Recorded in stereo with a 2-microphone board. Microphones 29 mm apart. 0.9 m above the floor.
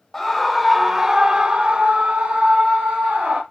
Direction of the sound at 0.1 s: 15° left (ahead or behind).